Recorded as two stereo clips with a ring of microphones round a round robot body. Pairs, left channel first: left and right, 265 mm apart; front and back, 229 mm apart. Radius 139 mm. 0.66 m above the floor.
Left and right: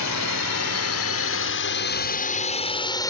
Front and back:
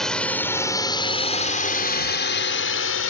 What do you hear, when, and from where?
0.0 s a drone: 90° left; by 3.1 s 15° left